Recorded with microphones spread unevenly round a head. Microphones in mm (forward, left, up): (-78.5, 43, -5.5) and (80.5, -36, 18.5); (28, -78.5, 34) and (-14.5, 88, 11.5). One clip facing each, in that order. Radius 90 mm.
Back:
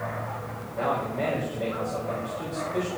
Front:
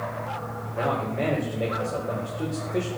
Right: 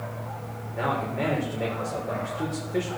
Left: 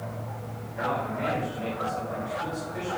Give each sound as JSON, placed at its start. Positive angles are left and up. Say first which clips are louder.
{"t": 0.7, "sound": "a man speaking", "louder": "front 1 dB, right 2 dB", "azimuth_deg": -80, "distance_m": 3.5}